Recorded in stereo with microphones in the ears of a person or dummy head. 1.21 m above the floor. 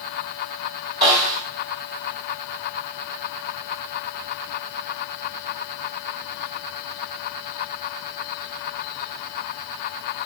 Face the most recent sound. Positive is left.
turn(degrees=-25)  # may be behind; listen again after turning